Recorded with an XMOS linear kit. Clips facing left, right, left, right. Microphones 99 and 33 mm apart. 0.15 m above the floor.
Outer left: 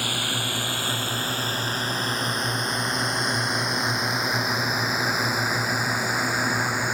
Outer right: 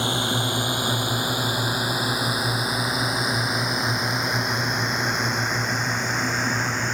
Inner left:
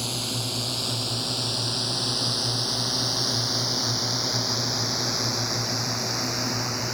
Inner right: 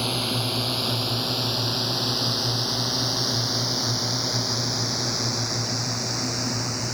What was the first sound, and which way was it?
A drone, 20° right (ahead or behind).